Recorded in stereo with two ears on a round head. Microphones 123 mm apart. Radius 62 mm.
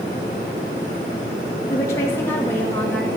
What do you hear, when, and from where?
1.7 s a woman speaking: 25° left (ahead or behind), 1.6 m; by 3.1 s 10° left (ahead or behind), 2 m